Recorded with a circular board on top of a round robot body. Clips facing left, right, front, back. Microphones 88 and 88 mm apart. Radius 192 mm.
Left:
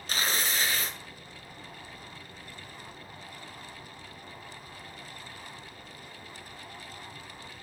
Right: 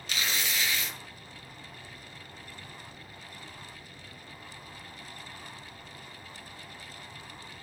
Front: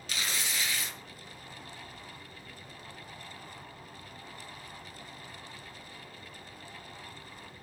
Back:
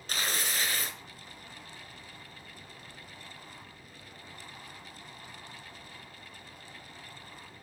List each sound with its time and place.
0.1 s tearing paper: 135° left, 2.0 m